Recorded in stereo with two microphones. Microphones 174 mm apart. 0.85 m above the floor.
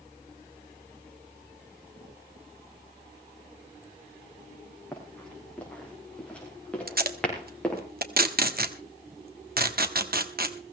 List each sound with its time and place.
4.9 s running footsteps: 5° left (ahead or behind), 7 m
6.9 s tape being pulled: 60° right (ahead or behind), 1.3 m